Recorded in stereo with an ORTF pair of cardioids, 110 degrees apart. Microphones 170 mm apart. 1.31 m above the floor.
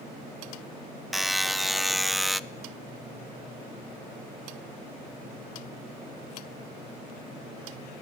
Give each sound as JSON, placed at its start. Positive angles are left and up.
{"t": 1.1, "sound": "a buzzer", "azimuth_deg": 0, "distance_m": 0.5}